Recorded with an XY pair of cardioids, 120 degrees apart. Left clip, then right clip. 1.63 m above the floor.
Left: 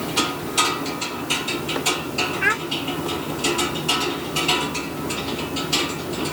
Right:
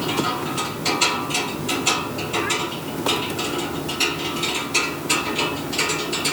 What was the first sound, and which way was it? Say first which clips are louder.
A child speaking: left 4 dB; 70° left.